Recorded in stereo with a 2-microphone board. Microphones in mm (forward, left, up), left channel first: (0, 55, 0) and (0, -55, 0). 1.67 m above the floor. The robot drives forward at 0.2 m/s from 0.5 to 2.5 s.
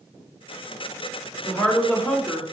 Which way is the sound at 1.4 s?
10° left (ahead or behind).